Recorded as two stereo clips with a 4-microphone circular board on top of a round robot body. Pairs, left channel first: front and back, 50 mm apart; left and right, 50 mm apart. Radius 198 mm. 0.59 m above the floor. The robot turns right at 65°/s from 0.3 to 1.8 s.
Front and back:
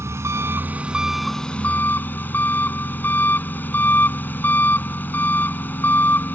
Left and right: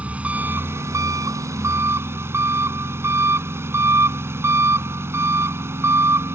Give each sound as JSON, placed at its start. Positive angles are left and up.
{"t": 0.0, "sound": "an engine running", "azimuth_deg": -150}